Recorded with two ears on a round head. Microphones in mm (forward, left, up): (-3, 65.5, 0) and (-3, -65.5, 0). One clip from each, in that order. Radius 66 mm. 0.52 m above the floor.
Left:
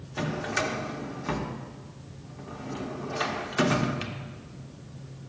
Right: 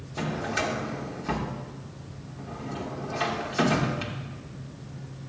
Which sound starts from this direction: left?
A drawer, at 0.2 s.